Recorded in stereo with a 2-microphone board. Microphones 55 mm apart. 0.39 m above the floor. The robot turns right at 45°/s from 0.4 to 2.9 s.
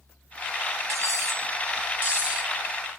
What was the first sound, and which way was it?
Cutlery clinking, 95° right.